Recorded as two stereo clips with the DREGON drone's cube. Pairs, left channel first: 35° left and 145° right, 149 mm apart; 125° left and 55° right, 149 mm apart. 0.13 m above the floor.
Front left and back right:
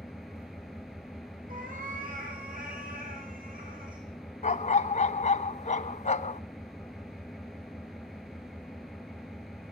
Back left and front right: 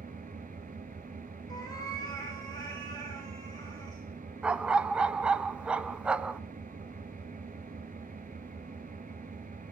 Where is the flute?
I don't hear a flute.